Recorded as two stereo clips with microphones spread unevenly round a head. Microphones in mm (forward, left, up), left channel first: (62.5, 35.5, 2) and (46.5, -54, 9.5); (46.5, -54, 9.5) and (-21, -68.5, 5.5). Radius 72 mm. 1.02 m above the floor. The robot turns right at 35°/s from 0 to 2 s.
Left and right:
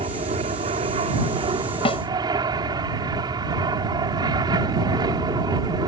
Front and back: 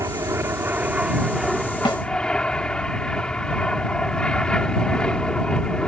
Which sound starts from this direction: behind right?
An aircraft, at 0.0 s.